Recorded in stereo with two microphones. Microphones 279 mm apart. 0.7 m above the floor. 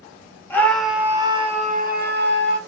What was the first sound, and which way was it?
A scream, 10° left (ahead or behind).